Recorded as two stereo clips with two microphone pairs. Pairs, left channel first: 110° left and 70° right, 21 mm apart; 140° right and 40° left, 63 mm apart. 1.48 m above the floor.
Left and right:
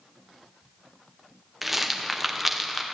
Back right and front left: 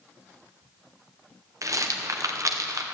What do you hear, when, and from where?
1.6 s a rattle: 15° left, 0.9 m